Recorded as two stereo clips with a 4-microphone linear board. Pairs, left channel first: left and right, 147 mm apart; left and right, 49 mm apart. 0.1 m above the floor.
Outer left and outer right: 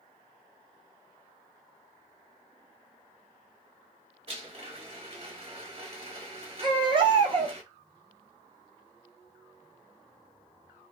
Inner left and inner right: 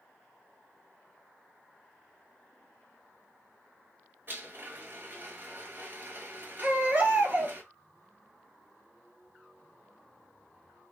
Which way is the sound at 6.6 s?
35° right (ahead or behind).